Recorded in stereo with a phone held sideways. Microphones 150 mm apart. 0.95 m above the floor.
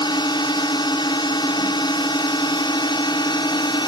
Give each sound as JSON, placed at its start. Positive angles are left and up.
{"t": 0.0, "sound": "a drone", "side_deg": 30}